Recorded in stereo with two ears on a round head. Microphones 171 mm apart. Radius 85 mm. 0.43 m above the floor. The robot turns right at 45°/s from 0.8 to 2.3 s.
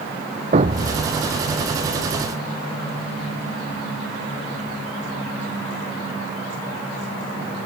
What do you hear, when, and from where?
0.5 s a thud: 35° right (ahead or behind); by 1.1 s 50° right (ahead or behind)